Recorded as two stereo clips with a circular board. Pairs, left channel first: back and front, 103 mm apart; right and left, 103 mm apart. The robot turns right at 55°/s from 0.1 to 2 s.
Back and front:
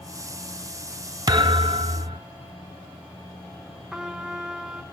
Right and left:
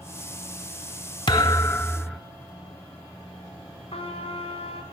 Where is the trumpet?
80° right, 1.1 m.